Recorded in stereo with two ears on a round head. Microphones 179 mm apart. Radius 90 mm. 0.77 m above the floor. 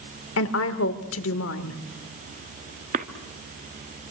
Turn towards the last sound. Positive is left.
turn(degrees=-40)  # may be behind; listen again after turning